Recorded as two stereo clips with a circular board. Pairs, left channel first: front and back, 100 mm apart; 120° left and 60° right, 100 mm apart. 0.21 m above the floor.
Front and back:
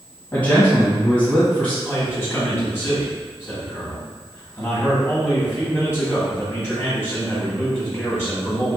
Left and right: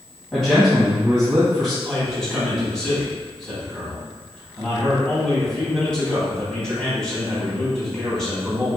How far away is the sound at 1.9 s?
About 1.7 m.